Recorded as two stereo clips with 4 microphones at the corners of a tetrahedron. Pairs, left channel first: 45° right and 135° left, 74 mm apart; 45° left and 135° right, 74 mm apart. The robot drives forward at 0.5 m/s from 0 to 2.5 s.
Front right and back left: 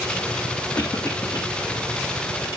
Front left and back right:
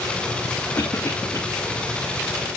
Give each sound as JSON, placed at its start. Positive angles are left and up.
{"t": 0.8, "sound": "a cough", "azimuth_deg": -5, "distance_m": 2.0}